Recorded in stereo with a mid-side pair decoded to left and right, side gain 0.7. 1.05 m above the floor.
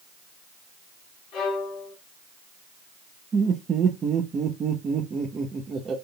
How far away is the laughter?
About 1.0 m.